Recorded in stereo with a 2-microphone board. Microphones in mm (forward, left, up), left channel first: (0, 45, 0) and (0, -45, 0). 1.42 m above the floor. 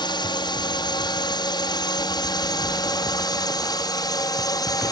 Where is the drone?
55° left (ahead or behind); by 4.9 s 45° left (ahead or behind).